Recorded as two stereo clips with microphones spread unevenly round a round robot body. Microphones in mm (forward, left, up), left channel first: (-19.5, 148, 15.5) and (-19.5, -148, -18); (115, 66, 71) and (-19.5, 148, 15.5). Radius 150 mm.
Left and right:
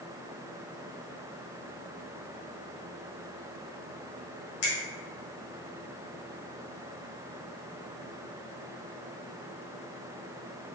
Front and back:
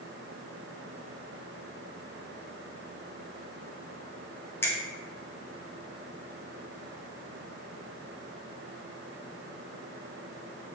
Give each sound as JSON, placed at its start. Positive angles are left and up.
{"t": 4.6, "sound": "a finger snap", "azimuth_deg": 60, "distance_m": 1.2}